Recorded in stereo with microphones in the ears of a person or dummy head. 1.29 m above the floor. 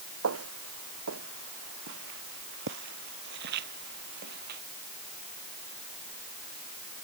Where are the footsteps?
75° right (ahead or behind); by 4.6 s 55° right (ahead or behind).